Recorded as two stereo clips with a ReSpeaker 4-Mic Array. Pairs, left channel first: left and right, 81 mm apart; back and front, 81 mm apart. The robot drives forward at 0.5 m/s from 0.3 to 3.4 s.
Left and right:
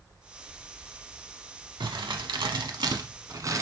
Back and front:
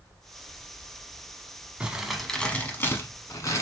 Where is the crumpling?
75° right, 0.7 m; by 3.6 s 130° right, 0.9 m.